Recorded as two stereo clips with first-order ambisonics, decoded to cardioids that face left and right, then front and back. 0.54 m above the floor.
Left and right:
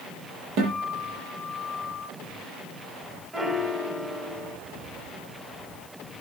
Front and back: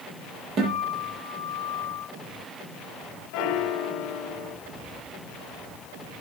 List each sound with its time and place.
0.6 s a guitar: 125° right, 7 m
3.3 s a piano: 10° right, 1.0 m